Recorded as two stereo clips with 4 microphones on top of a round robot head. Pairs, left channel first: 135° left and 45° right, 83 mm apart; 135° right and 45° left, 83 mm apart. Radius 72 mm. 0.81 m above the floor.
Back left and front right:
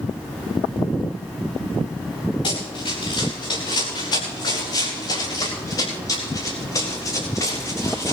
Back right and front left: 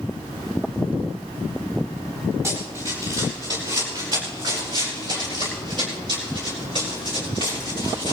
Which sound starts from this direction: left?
Running footsteps, at 2.4 s.